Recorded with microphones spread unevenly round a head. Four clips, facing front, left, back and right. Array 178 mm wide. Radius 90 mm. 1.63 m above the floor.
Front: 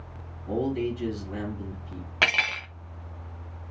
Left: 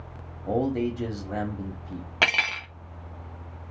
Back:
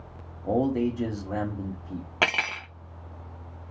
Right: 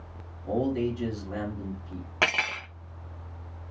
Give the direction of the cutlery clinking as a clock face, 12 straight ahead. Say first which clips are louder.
Left 1 dB, even; 6 o'clock.